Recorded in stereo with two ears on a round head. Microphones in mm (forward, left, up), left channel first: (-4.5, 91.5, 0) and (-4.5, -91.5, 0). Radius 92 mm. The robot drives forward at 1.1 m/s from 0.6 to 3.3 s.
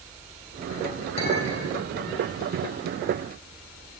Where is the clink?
30° left (ahead or behind), 5.5 m; by 1.8 s 35° left (ahead or behind), 4.5 m.